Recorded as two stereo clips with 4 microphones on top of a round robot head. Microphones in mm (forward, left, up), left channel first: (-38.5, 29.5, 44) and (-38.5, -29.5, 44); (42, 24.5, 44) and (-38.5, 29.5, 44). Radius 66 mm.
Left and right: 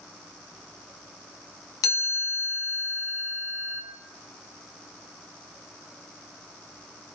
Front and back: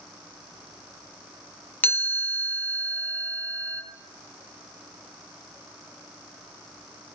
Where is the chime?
65° left, 3.5 m.